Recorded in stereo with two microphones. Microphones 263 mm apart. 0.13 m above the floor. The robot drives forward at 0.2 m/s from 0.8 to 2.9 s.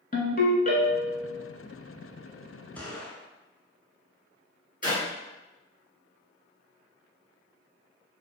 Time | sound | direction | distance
0.1 | a ringtone | 35° left (ahead or behind) | 0.7 m
2.8 | a gunshot | 5° left (ahead or behind) | 0.6 m
4.8 | a clap | 35° left (ahead or behind) | 1.5 m